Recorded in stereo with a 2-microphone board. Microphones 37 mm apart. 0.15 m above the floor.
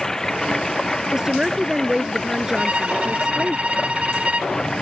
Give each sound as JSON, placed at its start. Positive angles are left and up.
{"t": 0.0, "sound": "running water", "side_deg": 10}
{"t": 1.1, "sound": "a woman speaking", "side_deg": -20}
{"t": 2.6, "sound": "a violin", "side_deg": -30}